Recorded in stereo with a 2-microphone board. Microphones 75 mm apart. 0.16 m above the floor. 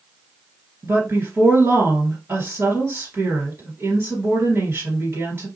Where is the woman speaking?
35° right (ahead or behind), 2 m.